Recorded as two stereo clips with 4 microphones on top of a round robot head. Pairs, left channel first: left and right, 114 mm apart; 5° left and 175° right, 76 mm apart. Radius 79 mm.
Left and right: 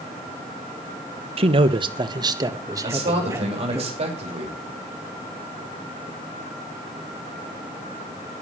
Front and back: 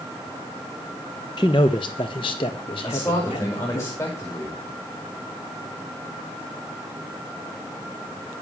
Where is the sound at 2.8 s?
60° right, 6 m.